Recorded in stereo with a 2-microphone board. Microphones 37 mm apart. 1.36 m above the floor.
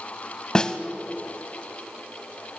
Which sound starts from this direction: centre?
A snare drum, at 0.6 s.